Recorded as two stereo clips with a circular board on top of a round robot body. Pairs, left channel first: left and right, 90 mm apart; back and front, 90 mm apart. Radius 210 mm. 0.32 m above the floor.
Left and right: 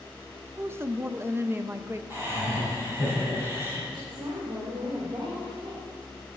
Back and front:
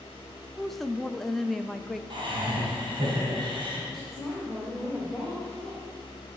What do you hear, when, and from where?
0.6 s a woman speaking: 95° right, 0.9 m
2.1 s laughter: 25° right, 4.5 m
3.9 s a woman speaking: 90° right, 2 m